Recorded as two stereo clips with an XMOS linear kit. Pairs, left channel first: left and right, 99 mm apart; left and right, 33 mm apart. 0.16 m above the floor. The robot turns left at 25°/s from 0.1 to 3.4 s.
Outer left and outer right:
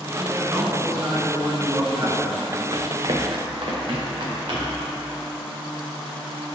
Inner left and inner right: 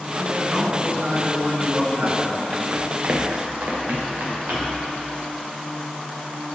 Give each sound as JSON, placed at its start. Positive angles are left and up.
{"t": 0.1, "sound": "a man speaking", "azimuth_deg": -55, "distance_m": 1.3}
{"t": 2.7, "sound": "running footsteps", "side_deg": -50, "distance_m": 0.6}